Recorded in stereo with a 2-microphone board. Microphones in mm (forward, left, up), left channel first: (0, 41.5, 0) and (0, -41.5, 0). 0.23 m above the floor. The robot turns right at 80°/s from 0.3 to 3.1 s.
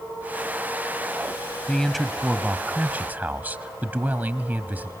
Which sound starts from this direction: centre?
A man speaking, at 1.7 s.